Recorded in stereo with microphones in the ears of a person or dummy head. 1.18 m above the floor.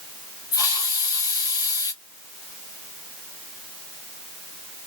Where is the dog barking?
I don't hear a dog barking.